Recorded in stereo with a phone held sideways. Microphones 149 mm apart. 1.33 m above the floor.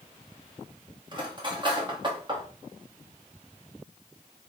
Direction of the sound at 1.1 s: 30° right (ahead or behind).